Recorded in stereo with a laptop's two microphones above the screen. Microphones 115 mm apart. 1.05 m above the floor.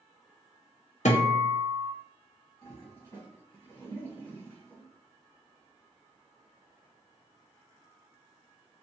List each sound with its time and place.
1.1 s a guitar: 75° left (ahead or behind), 0.5 m
2.6 s a toilet flushing: 25° left (ahead or behind), 1.6 m